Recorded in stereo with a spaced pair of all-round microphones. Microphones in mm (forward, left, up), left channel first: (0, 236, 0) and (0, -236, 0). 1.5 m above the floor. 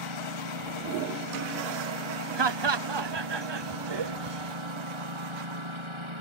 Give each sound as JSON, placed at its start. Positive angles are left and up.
{"t": 0.0, "sound": "a lawn mower", "side_deg": -80}
{"t": 2.4, "sound": "laughter", "side_deg": -60}